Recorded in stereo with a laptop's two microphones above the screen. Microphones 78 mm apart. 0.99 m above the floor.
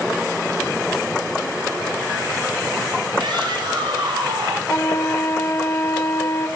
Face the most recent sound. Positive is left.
turn(degrees=35)  # may be behind; listen again after turning